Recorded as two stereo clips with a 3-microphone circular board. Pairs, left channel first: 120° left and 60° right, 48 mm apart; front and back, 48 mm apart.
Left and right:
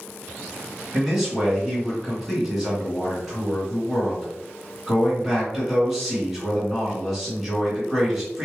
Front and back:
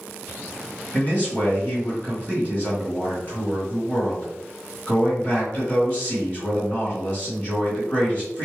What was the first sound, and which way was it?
A man speaking, 25° left.